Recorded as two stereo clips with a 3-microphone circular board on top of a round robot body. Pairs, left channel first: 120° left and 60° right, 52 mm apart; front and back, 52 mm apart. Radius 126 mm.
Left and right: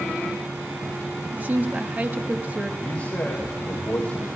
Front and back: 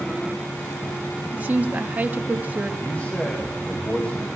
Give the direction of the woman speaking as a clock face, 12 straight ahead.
4 o'clock.